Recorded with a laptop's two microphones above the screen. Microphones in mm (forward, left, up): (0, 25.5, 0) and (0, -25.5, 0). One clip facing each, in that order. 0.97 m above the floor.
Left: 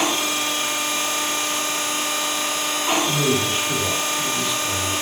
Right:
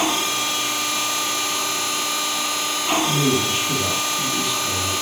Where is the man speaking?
70° right (ahead or behind), 1.7 m.